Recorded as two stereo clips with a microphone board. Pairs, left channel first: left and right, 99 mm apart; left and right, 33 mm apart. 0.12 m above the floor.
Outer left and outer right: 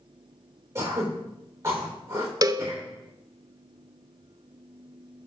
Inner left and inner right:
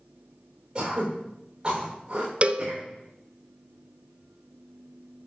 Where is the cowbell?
35° right (ahead or behind), 0.7 m.